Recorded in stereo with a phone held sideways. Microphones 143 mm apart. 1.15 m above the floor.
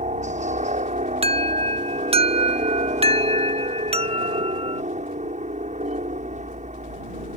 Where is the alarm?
45° right (ahead or behind).